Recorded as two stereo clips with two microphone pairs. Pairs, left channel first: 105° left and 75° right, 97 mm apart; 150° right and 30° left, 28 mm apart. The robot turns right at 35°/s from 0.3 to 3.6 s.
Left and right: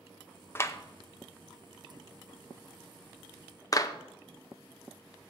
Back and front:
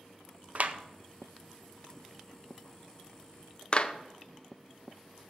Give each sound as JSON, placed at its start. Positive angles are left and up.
{"t": 0.6, "sound": "a clap", "azimuth_deg": 45, "distance_m": 0.6}